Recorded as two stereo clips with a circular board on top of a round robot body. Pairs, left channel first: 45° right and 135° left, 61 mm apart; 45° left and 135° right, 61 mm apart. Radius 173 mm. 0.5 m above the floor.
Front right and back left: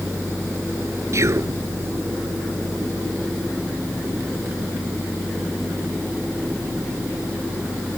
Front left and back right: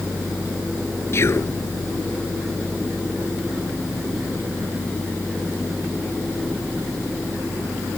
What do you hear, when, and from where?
1.1 s whispering: 90° left